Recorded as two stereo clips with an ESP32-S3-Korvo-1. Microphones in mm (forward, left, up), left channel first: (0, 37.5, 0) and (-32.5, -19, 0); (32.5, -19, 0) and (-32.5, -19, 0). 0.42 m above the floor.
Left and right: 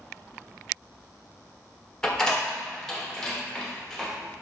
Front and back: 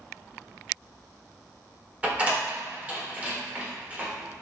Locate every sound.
2.0 s a door slam: 130° left, 0.8 m